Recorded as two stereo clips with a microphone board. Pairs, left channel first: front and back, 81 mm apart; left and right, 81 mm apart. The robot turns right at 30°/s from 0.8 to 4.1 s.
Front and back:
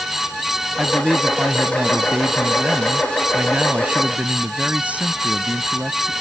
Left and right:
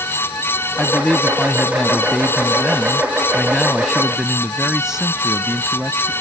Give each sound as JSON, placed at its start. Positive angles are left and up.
{"t": 0.8, "sound": "a man speaking", "azimuth_deg": 105}